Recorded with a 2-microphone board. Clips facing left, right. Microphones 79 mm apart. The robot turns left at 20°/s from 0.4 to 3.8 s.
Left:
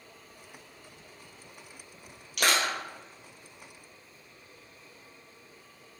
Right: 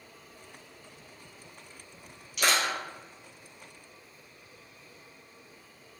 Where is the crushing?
70° left (ahead or behind), 1.9 m; by 2.7 s 65° left (ahead or behind), 1.9 m.